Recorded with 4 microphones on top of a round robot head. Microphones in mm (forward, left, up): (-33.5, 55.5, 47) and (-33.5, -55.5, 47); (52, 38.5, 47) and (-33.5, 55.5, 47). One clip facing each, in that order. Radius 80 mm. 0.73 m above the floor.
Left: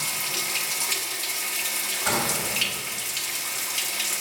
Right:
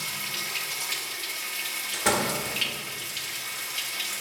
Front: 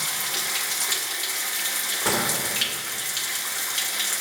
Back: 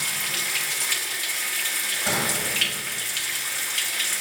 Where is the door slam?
55° right, 1.4 m.